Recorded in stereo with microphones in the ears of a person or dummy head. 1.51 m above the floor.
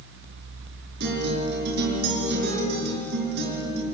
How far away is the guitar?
About 5.5 m.